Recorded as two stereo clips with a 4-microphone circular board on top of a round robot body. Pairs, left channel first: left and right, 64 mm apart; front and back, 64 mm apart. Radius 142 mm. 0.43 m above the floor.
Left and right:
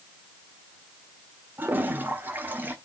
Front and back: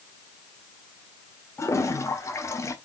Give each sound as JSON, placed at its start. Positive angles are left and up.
{"t": 1.6, "sound": "a toilet flushing", "azimuth_deg": -30, "distance_m": 1.9}